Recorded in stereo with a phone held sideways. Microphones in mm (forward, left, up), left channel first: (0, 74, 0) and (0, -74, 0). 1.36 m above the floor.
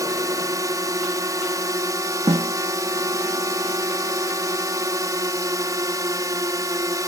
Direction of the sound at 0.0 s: 25° right (ahead or behind).